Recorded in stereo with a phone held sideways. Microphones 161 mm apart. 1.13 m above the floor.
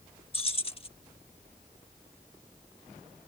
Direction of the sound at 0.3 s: 35° left (ahead or behind).